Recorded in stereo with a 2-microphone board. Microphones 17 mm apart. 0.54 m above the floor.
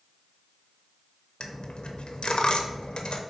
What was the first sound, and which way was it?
A dropped coin, 75° left (ahead or behind).